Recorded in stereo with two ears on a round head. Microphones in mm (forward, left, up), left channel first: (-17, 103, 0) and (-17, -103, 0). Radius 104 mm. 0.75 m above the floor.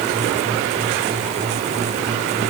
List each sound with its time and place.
Only background noise.